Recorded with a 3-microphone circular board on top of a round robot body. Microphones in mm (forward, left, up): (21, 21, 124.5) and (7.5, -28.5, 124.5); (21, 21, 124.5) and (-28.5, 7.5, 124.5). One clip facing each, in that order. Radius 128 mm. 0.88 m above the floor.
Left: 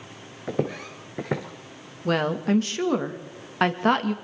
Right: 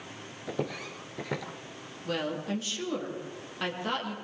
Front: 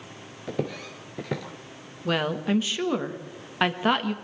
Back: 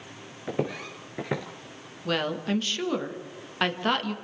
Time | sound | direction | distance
0.5 | footsteps | 130° left | 0.8 m
2.0 | a woman speaking | 95° left | 1.8 m